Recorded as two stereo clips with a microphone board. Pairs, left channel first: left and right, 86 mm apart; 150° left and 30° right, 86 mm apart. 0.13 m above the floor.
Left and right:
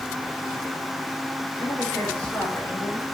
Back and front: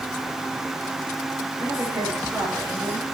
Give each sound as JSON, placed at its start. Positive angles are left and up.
{"t": 1.6, "sound": "a woman speaking", "azimuth_deg": 20, "distance_m": 8.0}